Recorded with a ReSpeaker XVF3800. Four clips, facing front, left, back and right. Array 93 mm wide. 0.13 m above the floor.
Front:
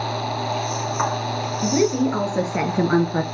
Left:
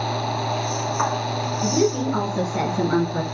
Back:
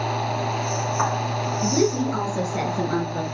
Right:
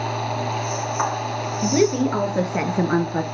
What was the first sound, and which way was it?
A woman speaking, 70° right.